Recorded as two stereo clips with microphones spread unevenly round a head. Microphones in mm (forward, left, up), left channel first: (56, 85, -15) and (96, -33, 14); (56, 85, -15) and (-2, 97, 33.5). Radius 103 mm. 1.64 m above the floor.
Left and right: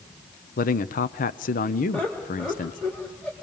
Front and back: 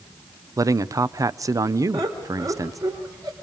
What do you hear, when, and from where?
0.6 s a man speaking: 130° left, 0.7 m
1.9 s laughter: 165° right, 3 m